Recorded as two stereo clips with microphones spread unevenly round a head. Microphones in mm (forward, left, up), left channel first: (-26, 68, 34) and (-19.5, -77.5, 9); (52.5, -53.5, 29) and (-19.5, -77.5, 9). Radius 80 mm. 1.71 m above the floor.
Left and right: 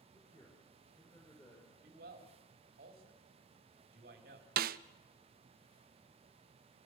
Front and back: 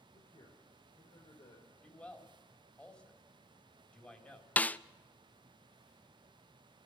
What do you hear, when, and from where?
0.1 s a man speaking: 15° left, 5 m
1.8 s a man speaking: 50° right, 4 m
4.6 s a snare drum: 50° right, 0.6 m